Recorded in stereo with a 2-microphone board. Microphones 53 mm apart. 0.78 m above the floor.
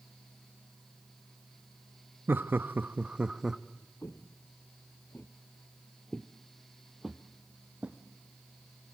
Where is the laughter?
45° right (ahead or behind), 1.0 m; by 3.6 s 10° right (ahead or behind), 1.0 m.